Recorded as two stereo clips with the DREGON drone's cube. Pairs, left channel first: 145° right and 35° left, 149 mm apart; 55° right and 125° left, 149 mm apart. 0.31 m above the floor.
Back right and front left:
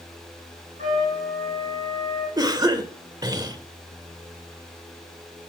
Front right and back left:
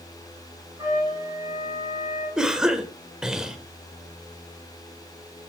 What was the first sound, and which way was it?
A trumpet, 60° left.